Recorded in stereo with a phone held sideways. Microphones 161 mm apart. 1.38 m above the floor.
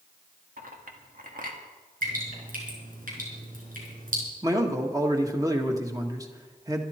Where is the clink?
65° right (ahead or behind), 1.9 m.